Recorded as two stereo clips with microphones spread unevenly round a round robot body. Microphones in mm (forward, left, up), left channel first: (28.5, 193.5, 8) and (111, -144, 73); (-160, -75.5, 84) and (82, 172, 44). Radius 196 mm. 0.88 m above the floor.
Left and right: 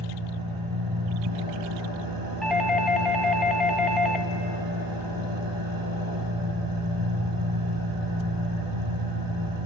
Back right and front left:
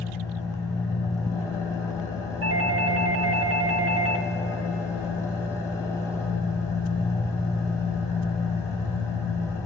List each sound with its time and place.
0.0 s an engine running: 55° right, 8.5 m
2.4 s a doorbell: 25° left, 1.7 m